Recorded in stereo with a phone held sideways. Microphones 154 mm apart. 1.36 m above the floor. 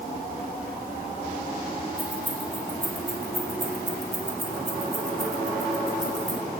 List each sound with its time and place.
2.0 s keys jangling: 30° right (ahead or behind), 2.5 m